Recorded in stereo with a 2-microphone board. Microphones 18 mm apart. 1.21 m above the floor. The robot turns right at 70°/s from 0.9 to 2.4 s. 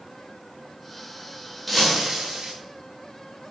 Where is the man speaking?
I don't hear a man speaking.